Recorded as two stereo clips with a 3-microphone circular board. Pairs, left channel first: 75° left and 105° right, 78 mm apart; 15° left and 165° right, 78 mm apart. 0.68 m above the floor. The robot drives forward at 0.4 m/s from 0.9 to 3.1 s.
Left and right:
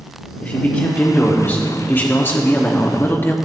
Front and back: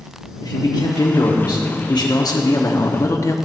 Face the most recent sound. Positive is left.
turn(degrees=30)